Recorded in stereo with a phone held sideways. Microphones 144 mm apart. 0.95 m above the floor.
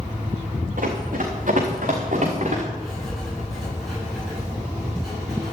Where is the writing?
Centre (ahead or behind), 7.5 m.